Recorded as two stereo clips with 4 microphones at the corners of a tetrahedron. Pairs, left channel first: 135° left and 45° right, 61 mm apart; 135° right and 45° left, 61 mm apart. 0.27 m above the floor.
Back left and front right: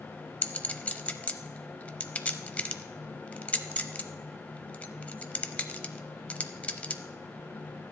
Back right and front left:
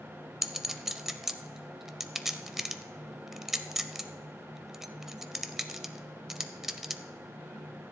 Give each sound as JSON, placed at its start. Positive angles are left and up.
{"t": 0.4, "sound": "a clink", "azimuth_deg": 120, "distance_m": 0.6}